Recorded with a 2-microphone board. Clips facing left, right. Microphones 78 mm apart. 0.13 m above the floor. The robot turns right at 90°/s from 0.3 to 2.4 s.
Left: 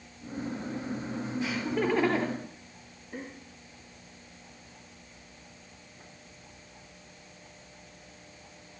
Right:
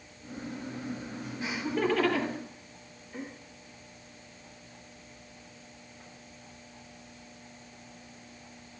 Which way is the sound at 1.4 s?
25° right (ahead or behind).